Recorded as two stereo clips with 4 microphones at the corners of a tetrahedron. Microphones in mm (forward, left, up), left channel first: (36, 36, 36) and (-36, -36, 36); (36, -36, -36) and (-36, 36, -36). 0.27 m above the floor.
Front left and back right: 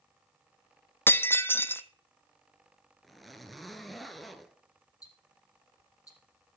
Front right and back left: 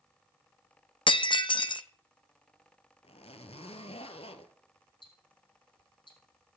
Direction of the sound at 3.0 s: 45° right.